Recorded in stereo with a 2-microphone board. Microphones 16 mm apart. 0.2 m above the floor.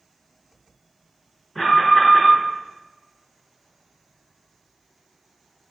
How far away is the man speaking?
I don't hear a man speaking.